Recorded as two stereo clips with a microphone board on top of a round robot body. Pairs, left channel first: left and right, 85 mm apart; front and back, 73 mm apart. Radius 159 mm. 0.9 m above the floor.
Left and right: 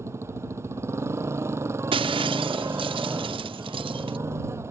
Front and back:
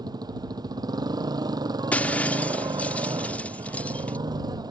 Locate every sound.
0.0 s a motorcycle: 150° right
1.9 s breaking glass: 70° right